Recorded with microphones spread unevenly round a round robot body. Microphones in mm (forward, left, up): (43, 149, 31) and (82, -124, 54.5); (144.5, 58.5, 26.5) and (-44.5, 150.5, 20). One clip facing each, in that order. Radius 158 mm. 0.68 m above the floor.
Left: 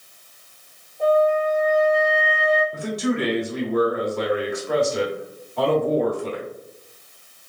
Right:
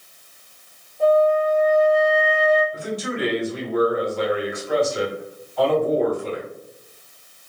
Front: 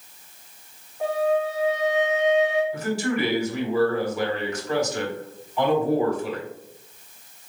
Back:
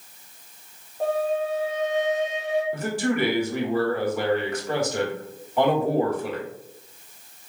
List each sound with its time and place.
1.0 s a flute: 170° right, 1.2 m
2.7 s a man speaking: 125° left, 1.9 m